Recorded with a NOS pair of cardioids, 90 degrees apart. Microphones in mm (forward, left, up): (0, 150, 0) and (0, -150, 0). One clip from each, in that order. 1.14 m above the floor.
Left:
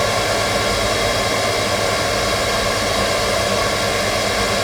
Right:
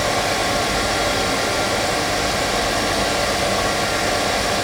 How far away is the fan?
About 1.0 m.